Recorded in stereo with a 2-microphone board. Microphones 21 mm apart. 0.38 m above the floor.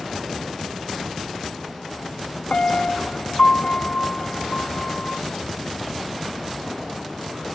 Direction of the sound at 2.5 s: 80° left.